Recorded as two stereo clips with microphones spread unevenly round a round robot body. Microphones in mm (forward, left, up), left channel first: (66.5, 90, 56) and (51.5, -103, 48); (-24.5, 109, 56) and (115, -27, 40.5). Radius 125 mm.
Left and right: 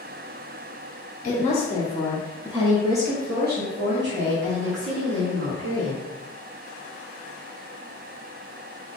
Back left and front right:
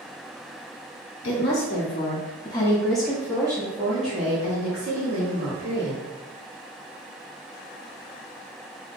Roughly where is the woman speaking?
Behind left.